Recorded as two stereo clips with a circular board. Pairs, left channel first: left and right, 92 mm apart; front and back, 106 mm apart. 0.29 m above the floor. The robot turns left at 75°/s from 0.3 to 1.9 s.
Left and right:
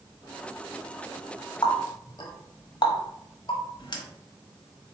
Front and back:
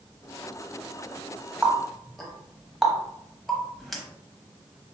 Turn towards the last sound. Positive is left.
turn(degrees=85)